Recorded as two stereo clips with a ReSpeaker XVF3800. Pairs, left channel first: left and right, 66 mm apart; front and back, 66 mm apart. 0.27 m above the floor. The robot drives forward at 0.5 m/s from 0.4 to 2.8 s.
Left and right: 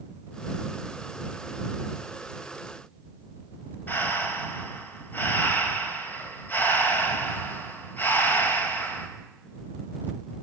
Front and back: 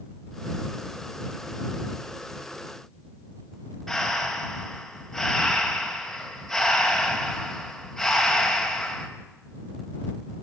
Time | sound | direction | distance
3.9 | breathing | 85° left | 1.7 m